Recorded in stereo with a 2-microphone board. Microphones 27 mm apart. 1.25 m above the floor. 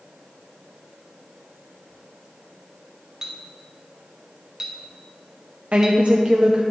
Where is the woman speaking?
55° right (ahead or behind), 0.6 m.